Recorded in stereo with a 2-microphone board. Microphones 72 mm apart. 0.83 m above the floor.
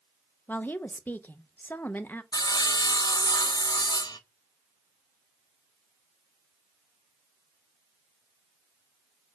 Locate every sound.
0.5 s a woman speaking: 25° left (ahead or behind), 0.8 m
2.3 s sawing: 70° left (ahead or behind), 0.8 m